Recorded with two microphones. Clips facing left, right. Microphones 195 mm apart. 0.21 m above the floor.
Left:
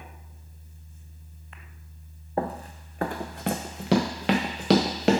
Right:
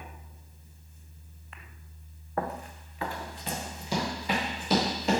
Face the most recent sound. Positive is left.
turn(degrees=80)